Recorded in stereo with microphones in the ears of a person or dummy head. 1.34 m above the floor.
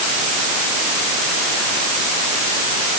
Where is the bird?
No bird in this recording.